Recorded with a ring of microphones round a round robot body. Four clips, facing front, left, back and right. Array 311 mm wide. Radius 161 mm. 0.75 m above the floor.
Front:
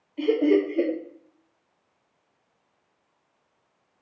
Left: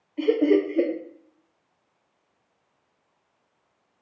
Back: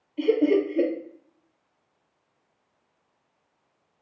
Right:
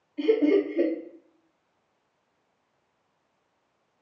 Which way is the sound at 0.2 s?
110° left.